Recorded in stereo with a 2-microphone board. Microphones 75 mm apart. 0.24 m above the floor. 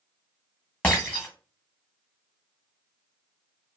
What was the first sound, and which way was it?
Breaking glass, 15° left (ahead or behind).